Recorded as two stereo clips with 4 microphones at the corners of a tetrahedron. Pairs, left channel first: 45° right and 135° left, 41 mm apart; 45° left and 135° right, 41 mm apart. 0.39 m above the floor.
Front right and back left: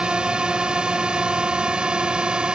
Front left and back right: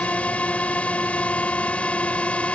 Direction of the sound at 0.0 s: 80° left.